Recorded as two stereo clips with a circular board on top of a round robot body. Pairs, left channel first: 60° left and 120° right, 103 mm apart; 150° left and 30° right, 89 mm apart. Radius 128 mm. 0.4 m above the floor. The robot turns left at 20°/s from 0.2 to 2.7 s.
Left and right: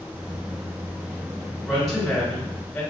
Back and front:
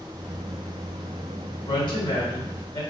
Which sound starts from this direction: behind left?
A woman speaking, at 1.6 s.